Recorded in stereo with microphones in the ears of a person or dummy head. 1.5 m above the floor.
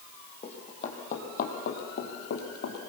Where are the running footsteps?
35° left (ahead or behind), 3.5 m; by 2.8 s 60° left (ahead or behind), 2.5 m.